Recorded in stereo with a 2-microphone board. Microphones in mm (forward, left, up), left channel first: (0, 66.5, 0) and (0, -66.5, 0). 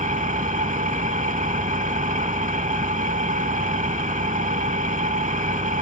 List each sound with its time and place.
0.0 s an engine running: 70° right (ahead or behind), 0.7 m